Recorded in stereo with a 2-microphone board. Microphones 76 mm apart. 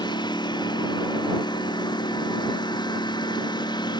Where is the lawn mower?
75° left (ahead or behind).